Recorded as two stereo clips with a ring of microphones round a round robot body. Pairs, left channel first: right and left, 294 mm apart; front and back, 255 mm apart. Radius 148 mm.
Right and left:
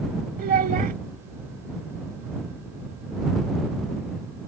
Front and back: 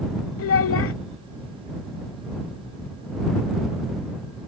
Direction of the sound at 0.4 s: 30° left.